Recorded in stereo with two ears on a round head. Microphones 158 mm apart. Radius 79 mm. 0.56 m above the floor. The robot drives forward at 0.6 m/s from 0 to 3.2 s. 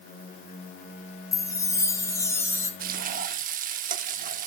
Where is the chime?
20° left (ahead or behind), 3.5 m; by 2.7 s 15° left (ahead or behind), 4.5 m.